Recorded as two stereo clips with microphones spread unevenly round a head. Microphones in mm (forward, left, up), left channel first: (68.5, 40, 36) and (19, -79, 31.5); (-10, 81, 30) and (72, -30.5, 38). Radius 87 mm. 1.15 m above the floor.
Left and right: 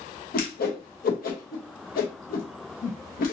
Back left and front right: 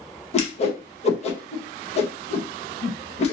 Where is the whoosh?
85° left, 0.9 m.